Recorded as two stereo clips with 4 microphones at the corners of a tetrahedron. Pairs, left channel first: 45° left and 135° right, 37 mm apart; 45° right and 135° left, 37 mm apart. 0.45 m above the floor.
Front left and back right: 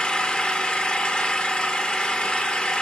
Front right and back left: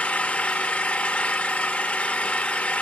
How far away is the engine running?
About 0.7 m.